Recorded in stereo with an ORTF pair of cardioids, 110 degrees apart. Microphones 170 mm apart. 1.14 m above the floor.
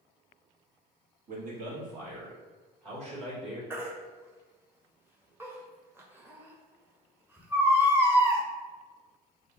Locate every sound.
1.3 s a man speaking: 55° right, 1.7 m; by 3.6 s 40° right, 3 m
3.7 s a baby crying: 15° right, 1.2 m